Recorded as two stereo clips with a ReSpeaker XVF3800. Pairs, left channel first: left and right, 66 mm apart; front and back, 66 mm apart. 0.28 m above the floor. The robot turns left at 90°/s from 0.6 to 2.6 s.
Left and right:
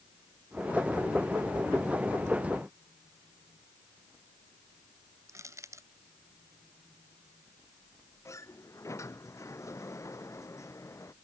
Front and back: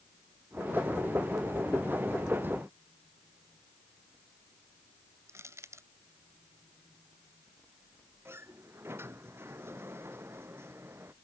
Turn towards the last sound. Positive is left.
turn(degrees=130)